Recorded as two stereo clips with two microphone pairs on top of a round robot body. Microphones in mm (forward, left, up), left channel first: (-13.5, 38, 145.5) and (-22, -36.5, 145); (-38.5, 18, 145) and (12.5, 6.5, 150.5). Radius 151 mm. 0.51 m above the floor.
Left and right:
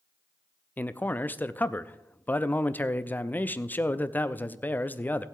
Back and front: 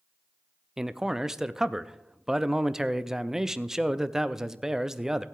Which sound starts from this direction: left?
A man speaking, at 0.8 s.